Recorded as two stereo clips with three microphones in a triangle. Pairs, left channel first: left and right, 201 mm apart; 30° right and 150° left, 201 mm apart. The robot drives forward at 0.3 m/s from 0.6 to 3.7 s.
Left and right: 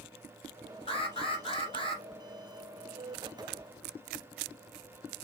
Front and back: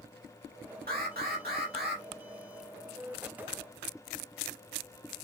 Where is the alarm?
140° left, 2.5 m; by 2.0 s 150° left, 2.5 m.